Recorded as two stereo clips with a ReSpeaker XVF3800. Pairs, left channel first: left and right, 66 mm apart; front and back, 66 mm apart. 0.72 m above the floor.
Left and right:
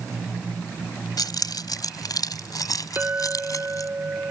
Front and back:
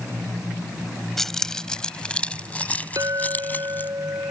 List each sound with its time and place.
1.2 s keys jangling: 85° left; by 3.9 s 60° left
3.0 s a clink: 145° right